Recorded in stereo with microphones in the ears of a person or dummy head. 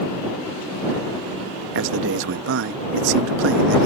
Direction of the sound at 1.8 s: 65° right (ahead or behind).